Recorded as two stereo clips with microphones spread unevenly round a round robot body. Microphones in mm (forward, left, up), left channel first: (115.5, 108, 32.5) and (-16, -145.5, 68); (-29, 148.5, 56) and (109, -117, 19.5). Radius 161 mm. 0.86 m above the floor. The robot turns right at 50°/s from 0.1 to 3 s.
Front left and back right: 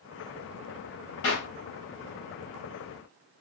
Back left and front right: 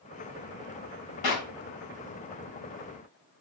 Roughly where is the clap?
Left.